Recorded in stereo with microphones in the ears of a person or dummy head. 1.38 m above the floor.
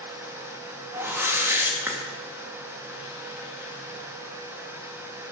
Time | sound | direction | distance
0.9 | a whoosh | 10° right (ahead or behind) | 2 m